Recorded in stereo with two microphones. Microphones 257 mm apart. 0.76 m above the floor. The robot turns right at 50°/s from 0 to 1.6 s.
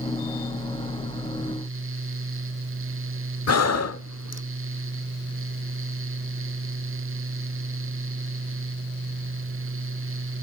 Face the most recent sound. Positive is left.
turn(degrees=75)  # may be behind; listen again after turning